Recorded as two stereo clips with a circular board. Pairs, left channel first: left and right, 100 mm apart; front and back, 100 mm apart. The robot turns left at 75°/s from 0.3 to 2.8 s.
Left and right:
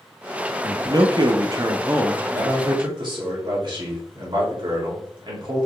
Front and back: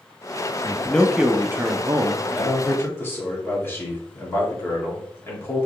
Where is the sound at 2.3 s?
25° right, 1.7 m; by 5.7 s 65° right, 1.7 m.